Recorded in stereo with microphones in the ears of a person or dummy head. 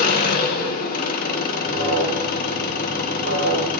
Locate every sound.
0.0 s an engine running: 60° left (ahead or behind), 1.4 m
1.6 s an alarm: 65° right (ahead or behind), 4 m